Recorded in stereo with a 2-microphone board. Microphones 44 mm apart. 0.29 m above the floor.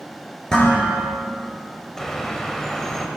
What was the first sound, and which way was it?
Dishes clattering, 15° left (ahead or behind).